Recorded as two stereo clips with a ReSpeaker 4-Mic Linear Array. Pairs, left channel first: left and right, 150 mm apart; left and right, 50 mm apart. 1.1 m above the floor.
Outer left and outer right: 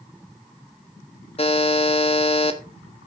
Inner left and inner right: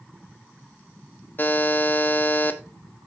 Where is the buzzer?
40° left (ahead or behind), 1.3 m.